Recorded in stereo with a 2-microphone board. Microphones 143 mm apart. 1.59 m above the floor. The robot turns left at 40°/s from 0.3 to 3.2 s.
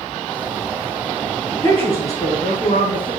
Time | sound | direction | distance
1.5 | a woman speaking | 150° left | 3.5 m